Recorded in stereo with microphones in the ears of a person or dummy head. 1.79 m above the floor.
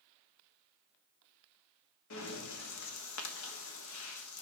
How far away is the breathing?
About 1.4 m.